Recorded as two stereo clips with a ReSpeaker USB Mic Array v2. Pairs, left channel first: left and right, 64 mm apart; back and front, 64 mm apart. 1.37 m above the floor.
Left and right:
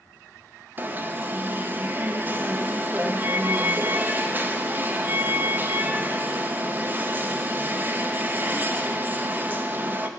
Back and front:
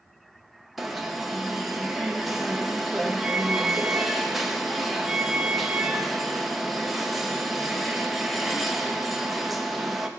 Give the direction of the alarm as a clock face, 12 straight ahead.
3 o'clock.